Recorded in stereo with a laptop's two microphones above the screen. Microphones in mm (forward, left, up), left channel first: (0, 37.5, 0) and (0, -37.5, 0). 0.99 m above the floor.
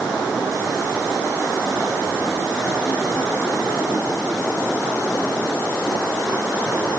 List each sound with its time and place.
Only background noise.